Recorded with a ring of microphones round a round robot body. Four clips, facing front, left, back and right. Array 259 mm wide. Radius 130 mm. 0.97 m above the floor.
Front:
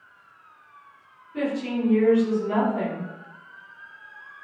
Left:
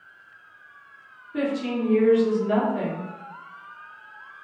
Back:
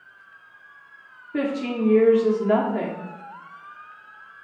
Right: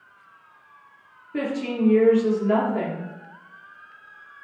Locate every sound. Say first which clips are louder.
1.3 s a woman speaking: even, back 2 dB; 165° right, 3 m